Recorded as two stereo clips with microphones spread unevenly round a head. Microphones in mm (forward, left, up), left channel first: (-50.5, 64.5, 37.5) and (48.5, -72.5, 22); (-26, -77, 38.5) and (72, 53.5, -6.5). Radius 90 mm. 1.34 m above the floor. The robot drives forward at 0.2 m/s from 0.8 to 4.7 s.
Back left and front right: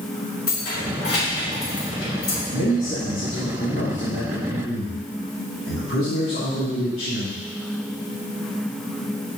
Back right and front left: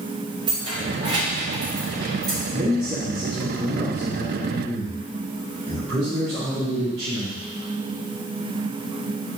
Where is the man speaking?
120° left, 2.5 m; by 7.4 s 130° left, 2.5 m.